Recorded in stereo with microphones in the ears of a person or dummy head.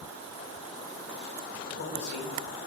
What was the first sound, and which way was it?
A man speaking, 65° left (ahead or behind).